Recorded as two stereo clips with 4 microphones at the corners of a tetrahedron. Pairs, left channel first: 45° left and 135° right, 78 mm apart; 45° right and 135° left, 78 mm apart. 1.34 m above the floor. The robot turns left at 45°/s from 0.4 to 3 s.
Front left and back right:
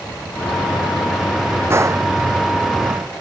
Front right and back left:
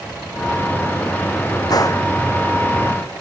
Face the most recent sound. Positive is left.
turn(degrees=-135)